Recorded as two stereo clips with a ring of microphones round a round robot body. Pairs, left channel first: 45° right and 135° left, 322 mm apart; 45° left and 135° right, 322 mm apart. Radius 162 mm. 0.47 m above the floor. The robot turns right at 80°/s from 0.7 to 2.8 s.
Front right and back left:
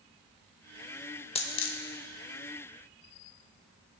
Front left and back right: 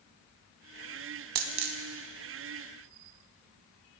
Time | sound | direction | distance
1.4 | a dropped coin | 120° right | 0.6 m